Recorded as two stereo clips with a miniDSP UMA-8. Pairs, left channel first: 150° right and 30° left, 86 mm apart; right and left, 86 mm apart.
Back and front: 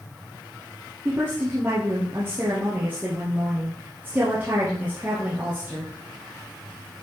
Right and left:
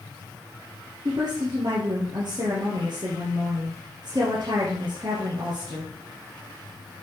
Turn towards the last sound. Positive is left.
turn(degrees=100)